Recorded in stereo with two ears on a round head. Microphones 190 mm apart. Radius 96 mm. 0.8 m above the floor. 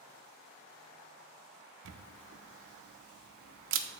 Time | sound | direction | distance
1.9 | a camera shutter | 60° right (ahead or behind) | 0.6 m